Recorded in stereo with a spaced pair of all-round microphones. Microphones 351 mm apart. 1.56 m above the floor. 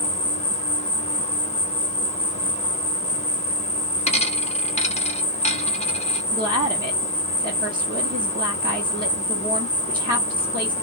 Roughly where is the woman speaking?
Right.